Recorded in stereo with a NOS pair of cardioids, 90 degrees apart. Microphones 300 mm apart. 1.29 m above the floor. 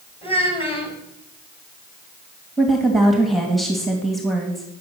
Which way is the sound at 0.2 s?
20° left.